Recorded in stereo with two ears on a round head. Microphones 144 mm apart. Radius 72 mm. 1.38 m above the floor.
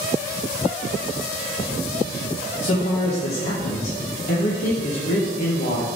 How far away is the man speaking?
About 1.8 m.